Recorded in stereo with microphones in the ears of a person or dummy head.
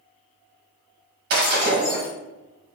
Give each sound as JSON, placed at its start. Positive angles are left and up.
{"t": 1.3, "sound": "breaking glass", "side_deg": -35, "distance_m": 1.2}